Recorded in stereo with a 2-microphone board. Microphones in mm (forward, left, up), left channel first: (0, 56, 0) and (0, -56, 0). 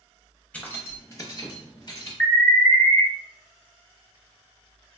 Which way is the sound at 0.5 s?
15° left (ahead or behind).